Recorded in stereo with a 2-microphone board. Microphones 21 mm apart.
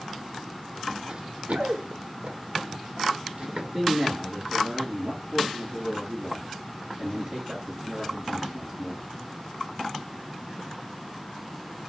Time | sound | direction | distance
1.1 | running footsteps | 50° right (ahead or behind) | 0.5 m
3.5 | a man speaking | 35° right (ahead or behind) | 1.8 m